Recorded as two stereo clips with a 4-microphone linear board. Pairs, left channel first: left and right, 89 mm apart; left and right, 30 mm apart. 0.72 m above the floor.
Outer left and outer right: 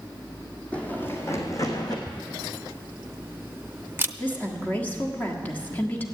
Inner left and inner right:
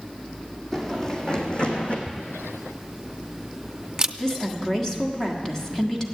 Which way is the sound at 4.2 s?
20° left (ahead or behind).